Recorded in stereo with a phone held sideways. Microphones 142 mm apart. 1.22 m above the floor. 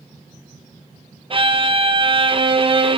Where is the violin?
40° right (ahead or behind), 0.6 m.